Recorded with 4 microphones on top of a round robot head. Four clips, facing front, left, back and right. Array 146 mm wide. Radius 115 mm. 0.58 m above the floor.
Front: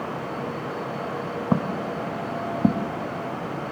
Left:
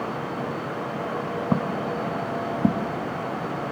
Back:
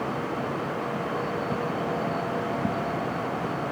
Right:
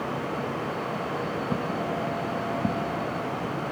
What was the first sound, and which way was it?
Footsteps, 35° left.